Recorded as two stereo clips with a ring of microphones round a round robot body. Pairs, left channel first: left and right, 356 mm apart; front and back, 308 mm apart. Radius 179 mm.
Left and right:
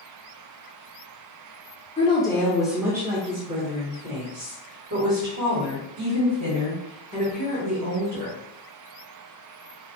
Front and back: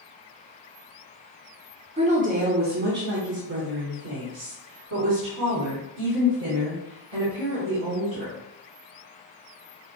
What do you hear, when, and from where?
2.0 s a woman speaking: 140° left, 1.0 m; by 8.3 s 130° right, 3.5 m